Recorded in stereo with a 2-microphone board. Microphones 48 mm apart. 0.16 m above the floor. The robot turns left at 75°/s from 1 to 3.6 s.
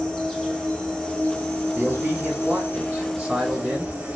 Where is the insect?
175° left, 1.0 m; by 4.2 s 20° right, 1.0 m.